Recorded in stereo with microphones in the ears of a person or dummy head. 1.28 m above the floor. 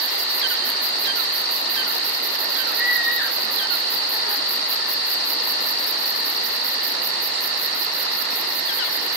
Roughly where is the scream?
Centre.